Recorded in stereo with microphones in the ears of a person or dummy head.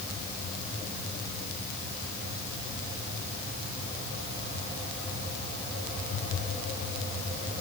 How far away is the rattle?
I don't hear a rattle.